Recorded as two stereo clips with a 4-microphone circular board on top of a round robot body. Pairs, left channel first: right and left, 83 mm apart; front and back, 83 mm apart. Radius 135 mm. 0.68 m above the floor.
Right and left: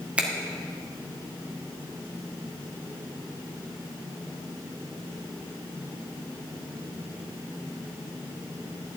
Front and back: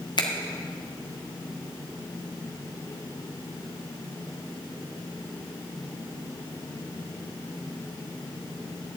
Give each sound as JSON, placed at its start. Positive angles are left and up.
{"t": 0.2, "sound": "a finger snap", "azimuth_deg": 15, "distance_m": 2.0}